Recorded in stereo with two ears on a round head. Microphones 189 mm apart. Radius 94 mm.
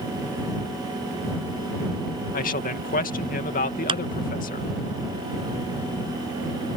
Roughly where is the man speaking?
Left.